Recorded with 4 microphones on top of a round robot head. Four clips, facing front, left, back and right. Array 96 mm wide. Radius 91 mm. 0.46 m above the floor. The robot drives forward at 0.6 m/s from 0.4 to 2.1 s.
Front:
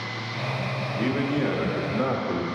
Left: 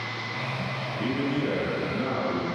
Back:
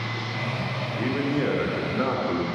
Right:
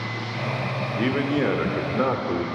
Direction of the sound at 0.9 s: 80° right.